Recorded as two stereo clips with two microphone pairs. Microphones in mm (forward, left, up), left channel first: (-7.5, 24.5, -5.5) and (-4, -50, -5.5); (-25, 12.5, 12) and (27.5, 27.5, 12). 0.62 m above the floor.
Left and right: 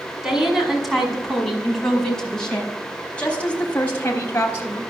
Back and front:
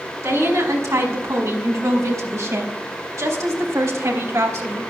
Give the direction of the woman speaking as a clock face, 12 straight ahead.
12 o'clock.